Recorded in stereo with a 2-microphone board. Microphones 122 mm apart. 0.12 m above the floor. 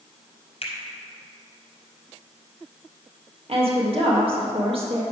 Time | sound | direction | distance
0.6 | a finger snap | 55° left (ahead or behind) | 2 m
3.5 | a woman speaking | 50° right (ahead or behind) | 2.5 m